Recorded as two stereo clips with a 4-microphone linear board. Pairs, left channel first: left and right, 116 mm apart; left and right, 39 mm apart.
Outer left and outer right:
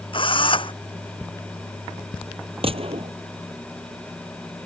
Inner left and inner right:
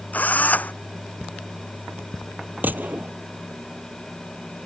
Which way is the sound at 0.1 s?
50° left (ahead or behind).